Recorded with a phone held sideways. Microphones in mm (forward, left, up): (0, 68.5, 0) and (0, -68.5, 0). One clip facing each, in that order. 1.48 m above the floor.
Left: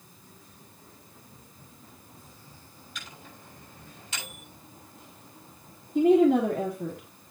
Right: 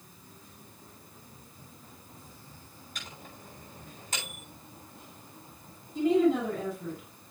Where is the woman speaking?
60° left (ahead or behind), 3 m.